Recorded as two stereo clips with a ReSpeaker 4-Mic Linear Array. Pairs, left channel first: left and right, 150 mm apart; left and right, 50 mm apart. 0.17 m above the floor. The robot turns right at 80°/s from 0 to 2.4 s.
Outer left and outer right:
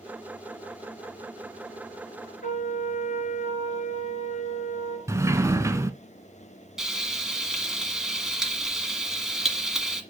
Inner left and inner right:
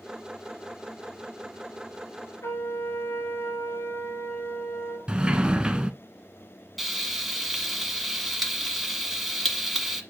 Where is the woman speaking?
I don't hear a woman speaking.